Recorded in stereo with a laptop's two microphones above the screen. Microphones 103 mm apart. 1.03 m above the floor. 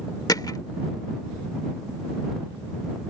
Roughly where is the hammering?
Left.